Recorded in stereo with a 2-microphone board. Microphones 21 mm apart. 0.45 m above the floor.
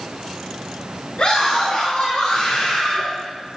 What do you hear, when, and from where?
1.2 s a scream: 55° left (ahead or behind), 7.5 m; by 3.0 s 60° left (ahead or behind), 6.5 m